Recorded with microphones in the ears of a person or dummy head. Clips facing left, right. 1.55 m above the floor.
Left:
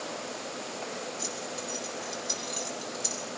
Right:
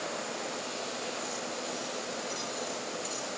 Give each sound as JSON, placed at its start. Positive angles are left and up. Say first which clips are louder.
{"t": 1.2, "sound": "keys jangling", "louder": "even", "side_deg": 65, "distance_m": 8.5}